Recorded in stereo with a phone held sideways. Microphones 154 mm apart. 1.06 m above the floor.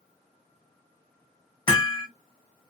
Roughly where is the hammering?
Left.